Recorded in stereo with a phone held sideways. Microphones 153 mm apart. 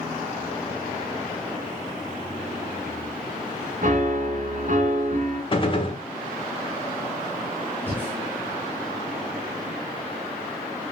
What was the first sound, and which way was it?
A piano, 60° right (ahead or behind).